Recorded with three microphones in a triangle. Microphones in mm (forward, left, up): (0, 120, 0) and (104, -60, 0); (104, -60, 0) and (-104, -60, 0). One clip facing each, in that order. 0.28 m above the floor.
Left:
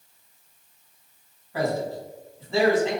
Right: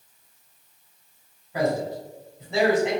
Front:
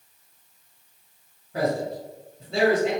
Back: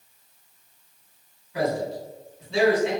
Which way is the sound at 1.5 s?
10° left.